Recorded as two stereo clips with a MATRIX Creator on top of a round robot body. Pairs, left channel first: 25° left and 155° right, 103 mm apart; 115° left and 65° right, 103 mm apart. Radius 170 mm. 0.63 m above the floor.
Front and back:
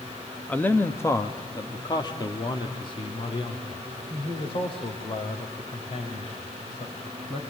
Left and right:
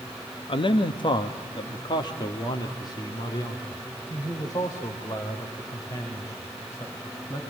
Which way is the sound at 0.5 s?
100° left.